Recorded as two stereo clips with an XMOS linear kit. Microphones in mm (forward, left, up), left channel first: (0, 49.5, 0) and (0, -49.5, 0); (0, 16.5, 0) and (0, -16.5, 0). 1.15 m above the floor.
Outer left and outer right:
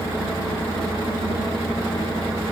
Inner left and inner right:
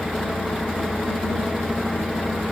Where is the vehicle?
50° right (ahead or behind).